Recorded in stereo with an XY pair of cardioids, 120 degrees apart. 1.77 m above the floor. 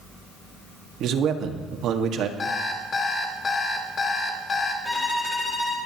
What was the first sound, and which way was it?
A man speaking, 65° right.